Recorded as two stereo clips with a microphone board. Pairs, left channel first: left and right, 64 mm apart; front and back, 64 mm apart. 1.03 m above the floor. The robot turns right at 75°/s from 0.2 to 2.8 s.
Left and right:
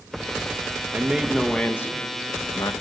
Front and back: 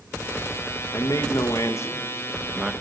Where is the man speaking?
30° right, 0.9 m; by 2.7 s 105° left, 0.9 m.